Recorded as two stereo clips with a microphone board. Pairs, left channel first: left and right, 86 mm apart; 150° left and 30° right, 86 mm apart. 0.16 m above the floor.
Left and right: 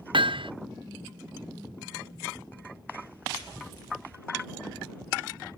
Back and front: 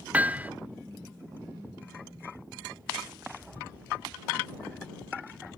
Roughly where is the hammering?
Right.